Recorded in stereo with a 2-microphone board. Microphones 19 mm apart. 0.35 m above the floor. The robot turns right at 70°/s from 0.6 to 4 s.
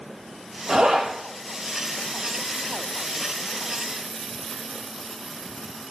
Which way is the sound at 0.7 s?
55° right (ahead or behind).